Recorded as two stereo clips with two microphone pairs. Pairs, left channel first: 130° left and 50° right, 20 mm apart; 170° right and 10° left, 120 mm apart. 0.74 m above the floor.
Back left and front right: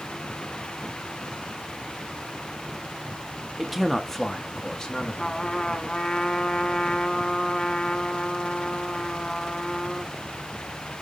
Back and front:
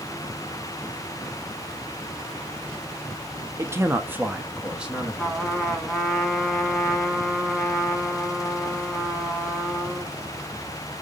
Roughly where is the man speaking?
Ahead.